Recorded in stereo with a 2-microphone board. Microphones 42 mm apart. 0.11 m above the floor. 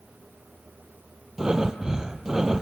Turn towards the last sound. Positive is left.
turn(degrees=-15)  # may be behind; listen again after turning